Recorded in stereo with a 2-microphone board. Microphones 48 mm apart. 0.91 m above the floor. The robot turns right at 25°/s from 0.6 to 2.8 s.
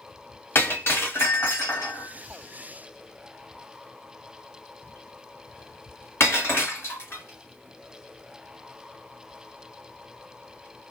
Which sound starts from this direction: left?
Breaking glass, at 0.6 s.